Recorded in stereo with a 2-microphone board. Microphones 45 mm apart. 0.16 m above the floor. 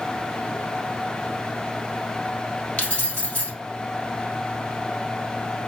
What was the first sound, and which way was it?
Keys jangling, 35° left (ahead or behind).